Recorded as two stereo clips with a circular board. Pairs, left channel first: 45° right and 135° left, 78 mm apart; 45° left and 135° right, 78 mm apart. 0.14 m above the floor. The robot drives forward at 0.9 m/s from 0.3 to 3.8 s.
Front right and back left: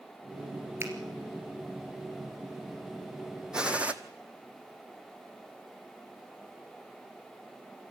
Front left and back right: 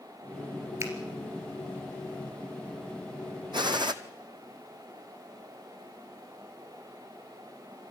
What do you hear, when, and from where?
0.8 s a finger snap: 175° right, 3 m
3.5 s a gunshot: 145° right, 0.9 m; by 3.9 s 150° right, 1.1 m